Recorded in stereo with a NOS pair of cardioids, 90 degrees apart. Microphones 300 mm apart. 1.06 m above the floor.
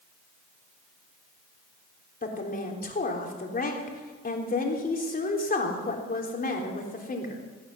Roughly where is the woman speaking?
Ahead left.